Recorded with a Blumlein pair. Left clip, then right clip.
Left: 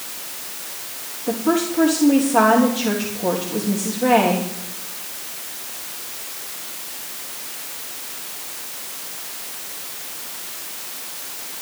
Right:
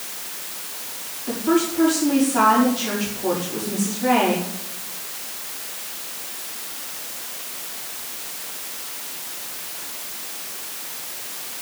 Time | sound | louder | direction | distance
1.3 | a woman speaking | even | 35° left | 3.5 m